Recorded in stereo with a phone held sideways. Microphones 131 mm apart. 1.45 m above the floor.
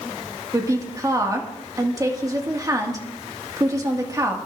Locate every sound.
0.5 s a woman speaking: 25° right (ahead or behind), 1.9 m